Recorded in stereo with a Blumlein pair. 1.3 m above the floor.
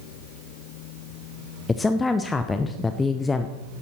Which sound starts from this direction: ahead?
A woman speaking, at 1.7 s.